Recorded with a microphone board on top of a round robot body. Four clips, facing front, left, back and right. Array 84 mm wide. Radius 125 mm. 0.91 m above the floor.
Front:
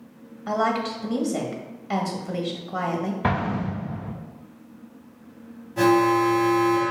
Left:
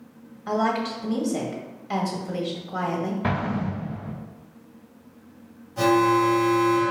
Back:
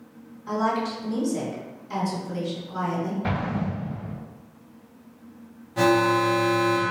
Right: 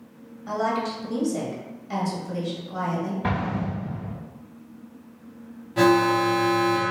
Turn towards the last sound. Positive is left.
turn(degrees=-105)